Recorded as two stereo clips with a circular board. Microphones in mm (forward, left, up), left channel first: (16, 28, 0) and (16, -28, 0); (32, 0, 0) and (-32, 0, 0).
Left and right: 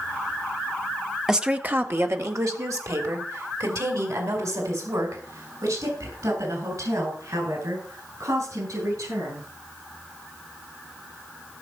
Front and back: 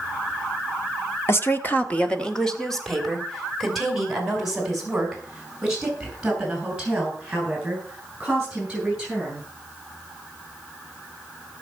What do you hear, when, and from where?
1.3 s a woman speaking: 15° right, 1.4 m; by 9.4 s 105° right, 12.5 m